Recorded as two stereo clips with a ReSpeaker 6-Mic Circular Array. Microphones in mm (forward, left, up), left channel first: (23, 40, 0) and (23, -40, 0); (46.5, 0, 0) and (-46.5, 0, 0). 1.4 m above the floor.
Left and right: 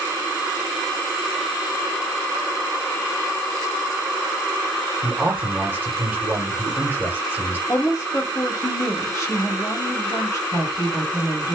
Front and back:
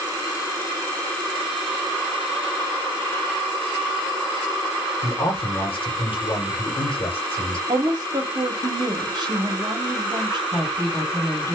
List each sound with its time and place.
5.0 s a man speaking: 20° right, 1.3 m
7.7 s a woman speaking: 140° left, 1.2 m
10.5 s a woman speaking: 60° left, 1.7 m